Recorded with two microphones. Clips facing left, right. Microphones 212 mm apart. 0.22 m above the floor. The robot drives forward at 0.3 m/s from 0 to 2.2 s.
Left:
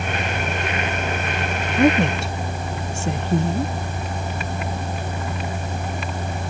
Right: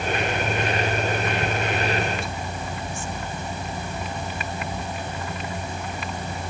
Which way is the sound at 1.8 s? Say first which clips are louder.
Left 9 dB; 75° left (ahead or behind).